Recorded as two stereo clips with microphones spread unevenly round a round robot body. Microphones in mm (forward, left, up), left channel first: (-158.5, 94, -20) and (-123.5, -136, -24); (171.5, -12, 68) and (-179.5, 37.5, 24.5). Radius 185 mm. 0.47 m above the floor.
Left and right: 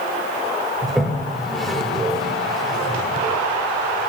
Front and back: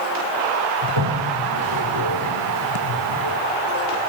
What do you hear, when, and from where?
0.8 s a toilet flushing: 170° right, 1.6 m